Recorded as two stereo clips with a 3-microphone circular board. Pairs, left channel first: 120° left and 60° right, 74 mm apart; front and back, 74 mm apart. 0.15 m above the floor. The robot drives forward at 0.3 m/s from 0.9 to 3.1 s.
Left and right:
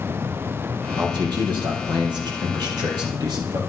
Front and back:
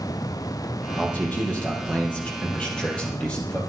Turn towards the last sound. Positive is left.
turn(degrees=-75)